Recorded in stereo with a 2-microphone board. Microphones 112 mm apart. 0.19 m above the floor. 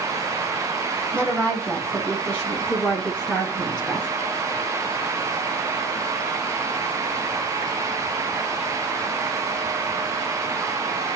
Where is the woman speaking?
15° left (ahead or behind), 7.5 m; by 4.1 s centre (ahead or behind), 6.5 m.